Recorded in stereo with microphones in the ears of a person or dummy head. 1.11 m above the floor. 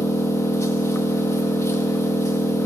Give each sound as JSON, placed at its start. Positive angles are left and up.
{"t": 0.0, "sound": "an engine running", "side_deg": 15, "distance_m": 1.1}